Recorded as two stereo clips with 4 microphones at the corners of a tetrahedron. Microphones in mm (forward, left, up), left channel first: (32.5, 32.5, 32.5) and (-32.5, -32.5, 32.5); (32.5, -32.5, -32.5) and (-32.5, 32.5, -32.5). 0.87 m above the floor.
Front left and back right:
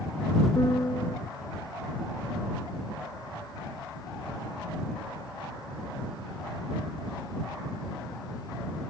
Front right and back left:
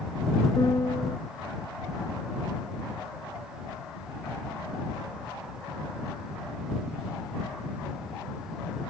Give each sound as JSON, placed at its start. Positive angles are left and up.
{"t": 0.6, "sound": "a piano", "azimuth_deg": 0}